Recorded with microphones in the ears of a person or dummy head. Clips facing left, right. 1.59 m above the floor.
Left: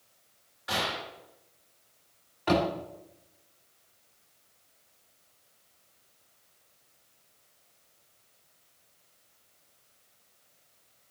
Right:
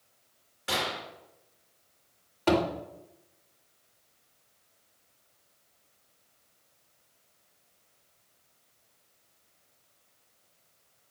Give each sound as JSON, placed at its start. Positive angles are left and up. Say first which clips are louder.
{"t": 0.7, "sound": "a gunshot", "louder": "even", "side_deg": -35, "distance_m": 3.0}
{"t": 2.5, "sound": "a thud", "louder": "right 1 dB", "side_deg": -40, "distance_m": 2.0}